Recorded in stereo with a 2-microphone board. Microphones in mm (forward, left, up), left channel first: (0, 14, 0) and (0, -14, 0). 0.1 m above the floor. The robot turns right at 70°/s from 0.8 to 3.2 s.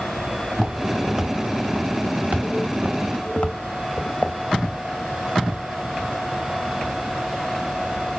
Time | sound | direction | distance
0.5 | footsteps | 15° left (ahead or behind) | 1.7 m